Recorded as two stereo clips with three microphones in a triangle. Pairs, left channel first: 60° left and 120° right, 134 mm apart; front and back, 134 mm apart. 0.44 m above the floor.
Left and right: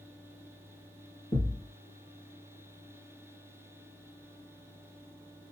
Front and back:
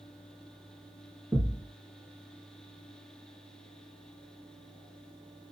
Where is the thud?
100° left, 1.9 m.